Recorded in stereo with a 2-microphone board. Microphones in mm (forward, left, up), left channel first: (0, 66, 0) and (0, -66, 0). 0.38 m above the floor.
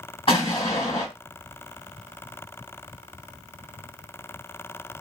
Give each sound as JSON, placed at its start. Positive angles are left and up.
{"t": 0.3, "sound": "an explosion", "side_deg": 45, "distance_m": 2.0}